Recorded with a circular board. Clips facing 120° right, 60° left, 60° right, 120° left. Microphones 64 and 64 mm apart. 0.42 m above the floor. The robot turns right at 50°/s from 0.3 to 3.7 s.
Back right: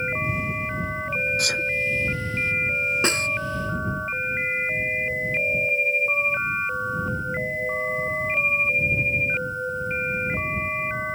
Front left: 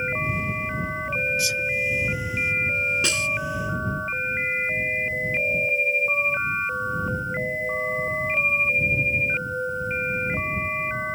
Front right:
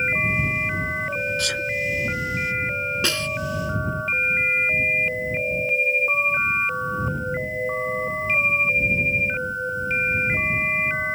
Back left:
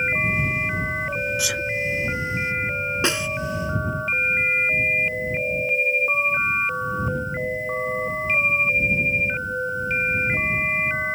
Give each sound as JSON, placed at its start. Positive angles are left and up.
{"t": 1.4, "sound": "a sneeze", "azimuth_deg": -160}
{"t": 3.0, "sound": "a snare drum", "azimuth_deg": -175}